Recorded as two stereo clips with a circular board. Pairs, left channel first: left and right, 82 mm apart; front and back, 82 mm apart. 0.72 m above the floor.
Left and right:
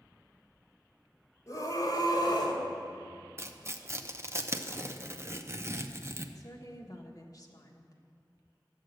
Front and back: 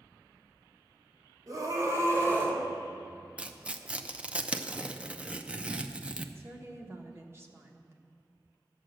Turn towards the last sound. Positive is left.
turn(degrees=125)